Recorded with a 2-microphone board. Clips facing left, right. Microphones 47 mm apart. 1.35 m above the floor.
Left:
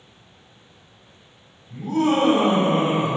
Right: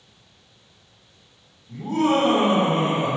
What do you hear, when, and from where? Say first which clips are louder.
1.7 s laughter: even; 35° right (ahead or behind), 1.3 m; by 3.2 s 30° left (ahead or behind), 0.8 m